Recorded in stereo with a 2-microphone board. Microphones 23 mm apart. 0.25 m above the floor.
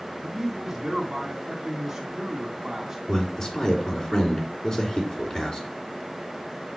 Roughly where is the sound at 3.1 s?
Left.